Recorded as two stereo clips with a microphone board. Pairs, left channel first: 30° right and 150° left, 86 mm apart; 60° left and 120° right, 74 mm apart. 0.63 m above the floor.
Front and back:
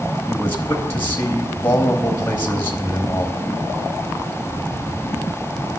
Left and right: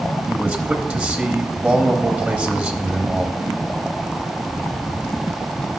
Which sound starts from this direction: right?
A man speaking, at 0.3 s.